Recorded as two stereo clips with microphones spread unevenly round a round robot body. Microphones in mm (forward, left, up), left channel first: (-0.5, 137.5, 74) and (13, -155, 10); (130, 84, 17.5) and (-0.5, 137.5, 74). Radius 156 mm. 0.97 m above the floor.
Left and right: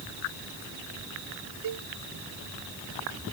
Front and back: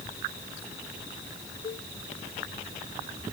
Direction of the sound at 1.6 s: 75° right.